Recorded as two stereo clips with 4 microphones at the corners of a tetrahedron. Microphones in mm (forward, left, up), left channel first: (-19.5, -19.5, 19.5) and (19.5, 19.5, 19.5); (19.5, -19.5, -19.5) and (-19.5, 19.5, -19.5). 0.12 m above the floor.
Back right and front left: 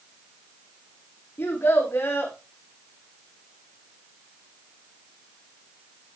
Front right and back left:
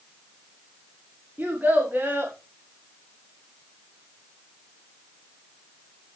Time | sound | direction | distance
1.4 | a child speaking | 170° right | 6.5 m